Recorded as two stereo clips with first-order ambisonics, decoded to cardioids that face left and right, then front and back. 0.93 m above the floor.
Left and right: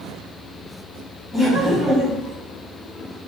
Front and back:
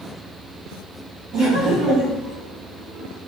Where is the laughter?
160° left, 1.1 m.